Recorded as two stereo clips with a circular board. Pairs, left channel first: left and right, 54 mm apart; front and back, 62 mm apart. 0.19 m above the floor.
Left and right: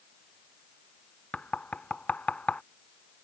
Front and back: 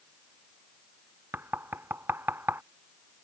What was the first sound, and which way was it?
Knocking, 145° left.